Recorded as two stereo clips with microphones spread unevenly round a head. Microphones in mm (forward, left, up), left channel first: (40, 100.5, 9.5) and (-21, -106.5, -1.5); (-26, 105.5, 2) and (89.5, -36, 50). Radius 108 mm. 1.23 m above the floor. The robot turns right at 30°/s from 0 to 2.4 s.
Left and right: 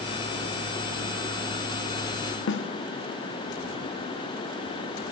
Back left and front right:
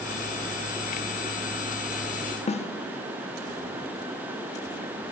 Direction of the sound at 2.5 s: 95° left.